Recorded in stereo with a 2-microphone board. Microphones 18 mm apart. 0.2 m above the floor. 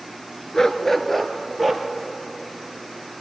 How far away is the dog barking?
About 0.9 m.